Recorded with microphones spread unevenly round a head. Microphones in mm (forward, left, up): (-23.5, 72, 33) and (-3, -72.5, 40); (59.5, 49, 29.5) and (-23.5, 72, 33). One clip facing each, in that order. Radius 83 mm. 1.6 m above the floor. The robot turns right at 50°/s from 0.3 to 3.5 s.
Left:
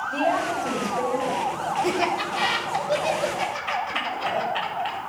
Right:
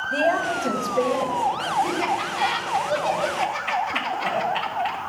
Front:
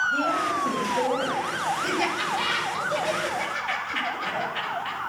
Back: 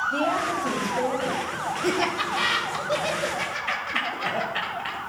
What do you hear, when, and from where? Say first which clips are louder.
0.1 s a woman speaking: right 2 dB, even; 130° right, 1.8 m; by 1.4 s 75° right, 1.8 m
1.8 s laughter: left 1 dB, back 1 dB; 110° left, 1.7 m; by 5.0 s 165° right, 1.7 m